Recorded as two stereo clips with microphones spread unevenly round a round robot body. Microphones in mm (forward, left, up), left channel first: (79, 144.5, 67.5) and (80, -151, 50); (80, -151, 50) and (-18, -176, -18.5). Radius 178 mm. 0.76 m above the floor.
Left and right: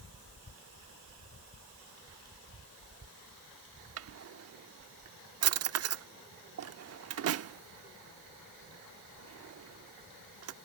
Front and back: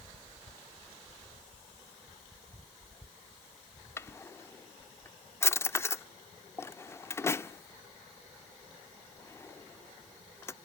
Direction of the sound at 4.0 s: 45° right.